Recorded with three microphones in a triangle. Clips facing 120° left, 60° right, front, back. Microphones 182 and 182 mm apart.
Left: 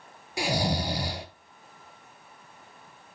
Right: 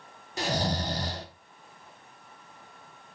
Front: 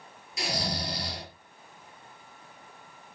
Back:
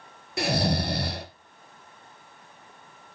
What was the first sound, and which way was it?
Snoring, 160° right.